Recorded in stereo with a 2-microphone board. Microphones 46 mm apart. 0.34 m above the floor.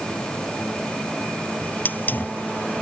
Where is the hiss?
40° left (ahead or behind).